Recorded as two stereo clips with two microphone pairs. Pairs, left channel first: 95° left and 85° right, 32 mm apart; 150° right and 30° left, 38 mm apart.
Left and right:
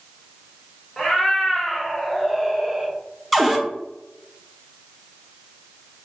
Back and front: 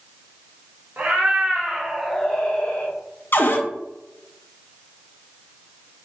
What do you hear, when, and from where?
1.0 s a cat meowing: 30° left, 1.0 m; by 3.0 s 155° right, 0.9 m
3.3 s a cupboard door: 170° right, 0.6 m